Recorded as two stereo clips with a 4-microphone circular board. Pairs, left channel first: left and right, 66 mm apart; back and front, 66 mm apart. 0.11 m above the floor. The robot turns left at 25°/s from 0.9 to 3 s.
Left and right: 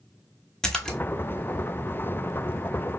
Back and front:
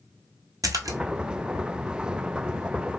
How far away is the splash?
About 0.5 m.